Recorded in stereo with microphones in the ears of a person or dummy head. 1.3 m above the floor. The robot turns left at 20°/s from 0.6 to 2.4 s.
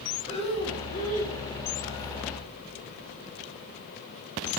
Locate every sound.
0.3 s breathing: 30° left (ahead or behind), 2.5 m; by 1.4 s 45° left (ahead or behind), 2.5 m